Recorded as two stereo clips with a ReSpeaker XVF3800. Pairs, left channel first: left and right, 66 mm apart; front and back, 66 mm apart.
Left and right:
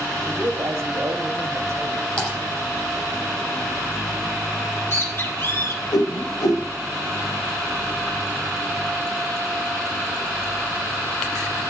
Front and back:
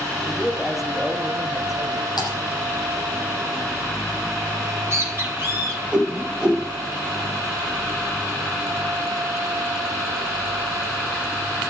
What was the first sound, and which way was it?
A man speaking, 95° right.